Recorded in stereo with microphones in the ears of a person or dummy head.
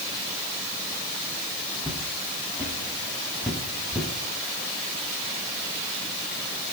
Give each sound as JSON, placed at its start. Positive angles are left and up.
{"t": 1.8, "sound": "footsteps", "side_deg": -5, "distance_m": 3.5}